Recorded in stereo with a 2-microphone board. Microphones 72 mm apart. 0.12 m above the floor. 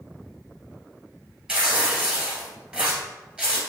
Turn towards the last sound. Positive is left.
turn(degrees=-10)  # may be behind; listen again after turning